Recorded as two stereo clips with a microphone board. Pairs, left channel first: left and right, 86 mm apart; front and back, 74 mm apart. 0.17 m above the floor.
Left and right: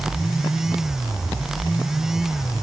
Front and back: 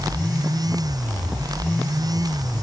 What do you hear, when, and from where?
Only background noise.